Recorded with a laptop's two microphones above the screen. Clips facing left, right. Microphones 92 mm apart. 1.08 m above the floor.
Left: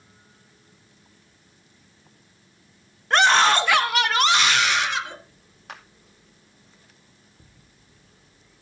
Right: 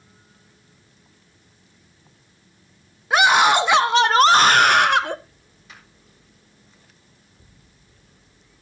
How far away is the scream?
About 1.3 m.